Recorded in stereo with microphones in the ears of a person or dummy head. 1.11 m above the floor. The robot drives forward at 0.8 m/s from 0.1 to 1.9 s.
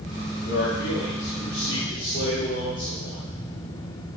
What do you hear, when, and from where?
0.4 s a man speaking: 85° left, 1.8 m; by 3.2 s 55° left (ahead or behind), 2 m